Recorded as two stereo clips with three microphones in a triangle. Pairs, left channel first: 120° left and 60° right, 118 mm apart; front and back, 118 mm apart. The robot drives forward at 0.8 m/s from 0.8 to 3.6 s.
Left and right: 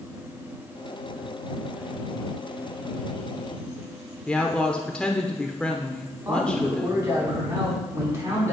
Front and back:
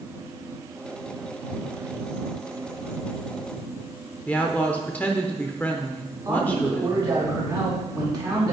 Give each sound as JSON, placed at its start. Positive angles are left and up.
{"t": 4.3, "sound": "a woman speaking", "azimuth_deg": 50, "distance_m": 0.8}
{"t": 6.2, "sound": "a man speaking", "azimuth_deg": -125, "distance_m": 4.0}